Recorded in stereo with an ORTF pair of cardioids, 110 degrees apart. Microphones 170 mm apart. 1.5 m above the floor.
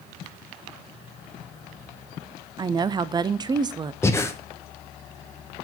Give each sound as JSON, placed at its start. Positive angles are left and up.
{"t": 2.6, "sound": "a woman speaking", "azimuth_deg": -25, "distance_m": 0.5}
{"t": 4.0, "sound": "breathing", "azimuth_deg": 15, "distance_m": 0.9}